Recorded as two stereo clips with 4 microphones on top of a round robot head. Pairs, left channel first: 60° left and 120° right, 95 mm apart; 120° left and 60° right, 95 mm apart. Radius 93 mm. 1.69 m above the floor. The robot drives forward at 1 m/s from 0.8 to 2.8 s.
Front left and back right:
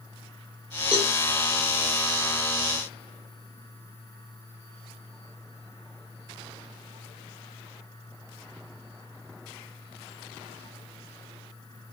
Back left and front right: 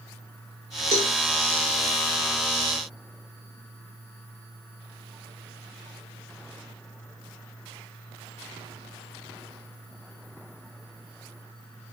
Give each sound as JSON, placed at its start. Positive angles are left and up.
{"t": 0.9, "sound": "a cowbell", "azimuth_deg": -45, "distance_m": 1.5}